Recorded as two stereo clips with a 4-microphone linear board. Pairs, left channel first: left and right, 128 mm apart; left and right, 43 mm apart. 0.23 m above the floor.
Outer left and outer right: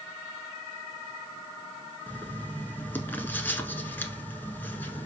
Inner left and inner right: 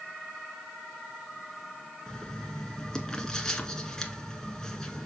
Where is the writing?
15° left (ahead or behind), 1.1 m.